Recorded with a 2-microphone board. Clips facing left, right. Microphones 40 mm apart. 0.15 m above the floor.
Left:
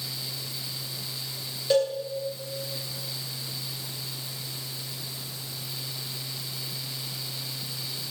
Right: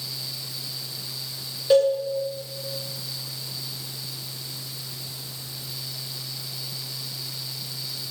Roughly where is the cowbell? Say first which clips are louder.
Right 6 dB; centre.